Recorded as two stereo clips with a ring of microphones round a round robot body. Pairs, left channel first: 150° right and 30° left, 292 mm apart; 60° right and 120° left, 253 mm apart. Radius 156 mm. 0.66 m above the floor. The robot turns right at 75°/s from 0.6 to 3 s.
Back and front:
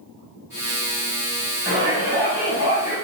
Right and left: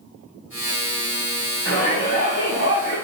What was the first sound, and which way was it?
A shout, 90° left.